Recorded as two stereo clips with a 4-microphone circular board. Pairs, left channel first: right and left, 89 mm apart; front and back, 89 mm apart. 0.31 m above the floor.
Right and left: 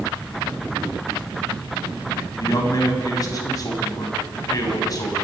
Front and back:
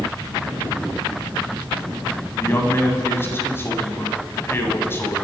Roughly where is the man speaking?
Ahead right.